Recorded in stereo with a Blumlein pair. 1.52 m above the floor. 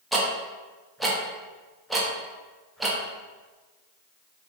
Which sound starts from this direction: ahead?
Ticking, at 0.1 s.